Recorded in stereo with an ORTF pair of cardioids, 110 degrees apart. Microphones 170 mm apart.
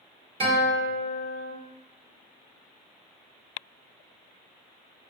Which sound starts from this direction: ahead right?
A guitar, at 0.4 s.